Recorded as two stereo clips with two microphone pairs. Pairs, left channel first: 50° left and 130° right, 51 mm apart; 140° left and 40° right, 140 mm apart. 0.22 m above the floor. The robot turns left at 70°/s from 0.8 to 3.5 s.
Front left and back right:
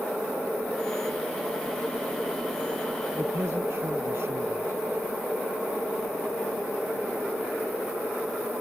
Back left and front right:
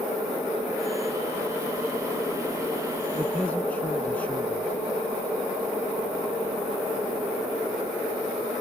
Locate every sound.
3.1 s a man speaking: 120° right; by 4.8 s 145° right